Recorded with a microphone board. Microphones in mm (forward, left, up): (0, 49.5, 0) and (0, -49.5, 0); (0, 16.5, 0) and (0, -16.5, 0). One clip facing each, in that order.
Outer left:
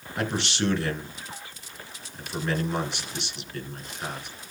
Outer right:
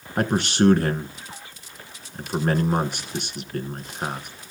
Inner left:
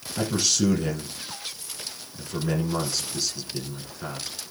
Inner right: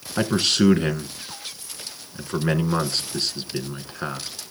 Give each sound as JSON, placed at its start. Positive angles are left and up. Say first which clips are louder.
{"t": 0.2, "sound": "a man speaking", "louder": "outer right 7 dB, inner right 5 dB", "side_deg": -45, "distance_m": 1.9}